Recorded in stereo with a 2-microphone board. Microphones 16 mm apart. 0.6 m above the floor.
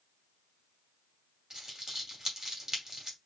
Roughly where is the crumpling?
Right.